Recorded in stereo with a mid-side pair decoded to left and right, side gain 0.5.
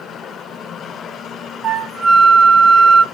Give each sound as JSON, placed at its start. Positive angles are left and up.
{"t": 1.6, "sound": "a flute", "azimuth_deg": -55, "distance_m": 1.1}